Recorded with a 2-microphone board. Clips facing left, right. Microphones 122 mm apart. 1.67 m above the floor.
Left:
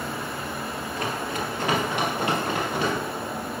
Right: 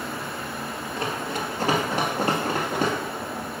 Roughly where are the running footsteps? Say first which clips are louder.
Right 1 dB; right.